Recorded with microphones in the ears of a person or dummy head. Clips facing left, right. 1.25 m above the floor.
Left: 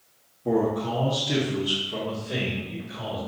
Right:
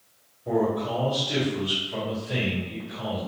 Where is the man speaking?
55° left (ahead or behind), 1.0 m; by 3.2 s 15° left (ahead or behind), 3.5 m.